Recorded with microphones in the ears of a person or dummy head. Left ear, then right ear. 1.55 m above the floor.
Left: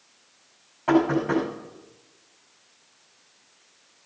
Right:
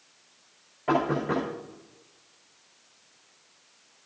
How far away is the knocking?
About 5 m.